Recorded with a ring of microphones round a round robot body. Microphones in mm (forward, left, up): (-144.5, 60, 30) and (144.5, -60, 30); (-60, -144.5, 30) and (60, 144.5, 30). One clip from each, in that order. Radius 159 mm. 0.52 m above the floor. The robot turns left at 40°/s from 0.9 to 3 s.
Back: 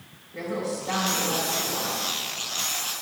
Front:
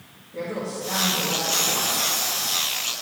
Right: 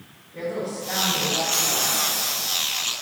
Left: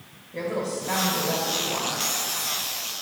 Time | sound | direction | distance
0.3 | a woman speaking | 65° left | 2.5 m